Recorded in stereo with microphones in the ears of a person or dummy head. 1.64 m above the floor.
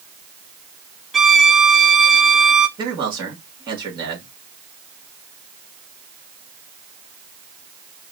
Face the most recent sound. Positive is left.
turn(degrees=-25)  # may be behind; listen again after turning